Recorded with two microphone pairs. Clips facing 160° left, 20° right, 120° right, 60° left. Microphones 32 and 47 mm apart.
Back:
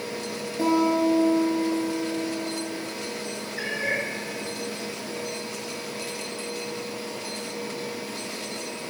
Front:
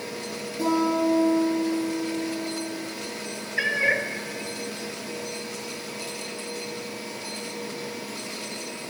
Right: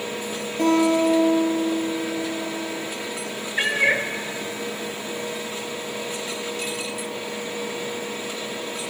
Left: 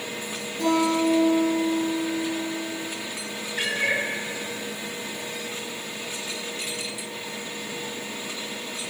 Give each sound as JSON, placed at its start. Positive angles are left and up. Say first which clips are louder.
{"t": 0.6, "sound": "a guitar", "louder": "back 1 dB, right 3 dB", "azimuth_deg": -150, "distance_m": 4.0}
{"t": 3.6, "sound": "a cat meowing", "louder": "front 5 dB, right 4 dB", "azimuth_deg": -60, "distance_m": 0.7}